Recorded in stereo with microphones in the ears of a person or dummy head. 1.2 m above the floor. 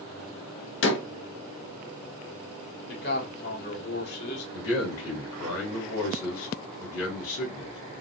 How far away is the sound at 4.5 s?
About 2.5 m.